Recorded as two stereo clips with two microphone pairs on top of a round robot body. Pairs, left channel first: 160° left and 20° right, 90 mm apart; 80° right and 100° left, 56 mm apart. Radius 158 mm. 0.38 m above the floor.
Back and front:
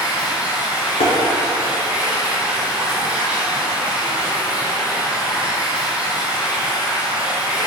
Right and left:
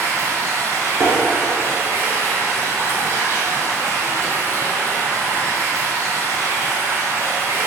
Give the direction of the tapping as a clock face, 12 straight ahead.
7 o'clock.